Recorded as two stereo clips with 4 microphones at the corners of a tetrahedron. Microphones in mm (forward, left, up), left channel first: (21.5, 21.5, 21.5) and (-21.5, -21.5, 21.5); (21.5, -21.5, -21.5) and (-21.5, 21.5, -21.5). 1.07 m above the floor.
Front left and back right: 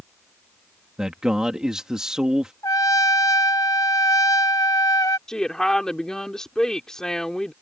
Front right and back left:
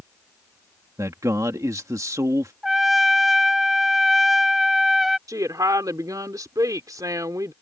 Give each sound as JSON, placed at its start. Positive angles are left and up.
{"t": 1.0, "sound": "a man speaking", "azimuth_deg": 145}
{"t": 2.6, "sound": "a trumpet", "azimuth_deg": 50}
{"t": 5.3, "sound": "a woman speaking", "azimuth_deg": 125}